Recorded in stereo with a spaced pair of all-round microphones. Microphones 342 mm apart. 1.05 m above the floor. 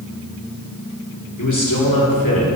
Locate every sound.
1.4 s a man speaking: 55° left (ahead or behind), 3 m; by 2.5 s 80° left, 3 m